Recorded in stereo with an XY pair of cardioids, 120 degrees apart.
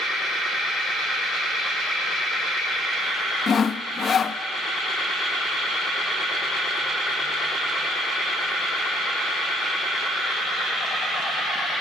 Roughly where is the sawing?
Ahead left.